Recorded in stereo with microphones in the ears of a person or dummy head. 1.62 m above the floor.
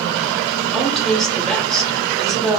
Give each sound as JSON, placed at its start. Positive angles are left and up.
{"t": 0.7, "sound": "a woman speaking", "side_deg": 5, "distance_m": 1.6}